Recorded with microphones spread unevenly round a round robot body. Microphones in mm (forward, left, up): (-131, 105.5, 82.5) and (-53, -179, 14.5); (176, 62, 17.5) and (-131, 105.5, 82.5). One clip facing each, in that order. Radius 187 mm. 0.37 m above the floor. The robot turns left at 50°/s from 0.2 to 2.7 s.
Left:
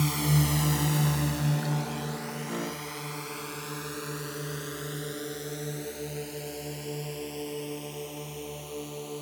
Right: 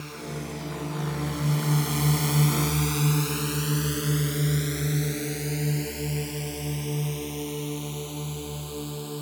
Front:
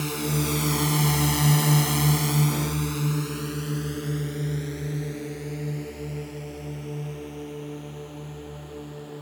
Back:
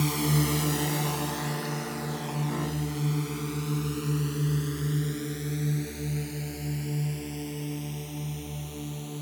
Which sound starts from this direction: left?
A drone, at 0.0 s.